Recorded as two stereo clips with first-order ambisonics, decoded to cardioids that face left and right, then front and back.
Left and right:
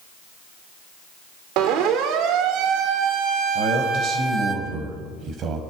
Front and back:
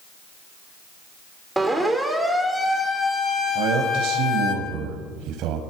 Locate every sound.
1.6 s a siren: 95° right, 3 m; by 4.5 s 30° right, 2.5 m
3.5 s a man speaking: 145° right, 5 m